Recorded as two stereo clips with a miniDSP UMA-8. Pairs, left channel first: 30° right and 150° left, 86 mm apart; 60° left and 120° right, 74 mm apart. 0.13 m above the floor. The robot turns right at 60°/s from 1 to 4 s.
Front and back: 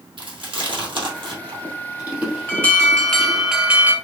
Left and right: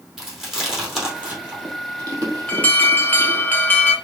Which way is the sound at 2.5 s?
15° left.